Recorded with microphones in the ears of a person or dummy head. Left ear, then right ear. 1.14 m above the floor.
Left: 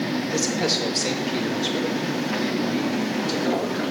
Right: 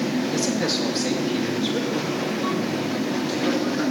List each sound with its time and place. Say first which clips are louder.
0.3 s a man speaking: left 3 dB; centre (ahead or behind), 1.5 m; by 3.8 s 5° left (ahead or behind), 3.5 m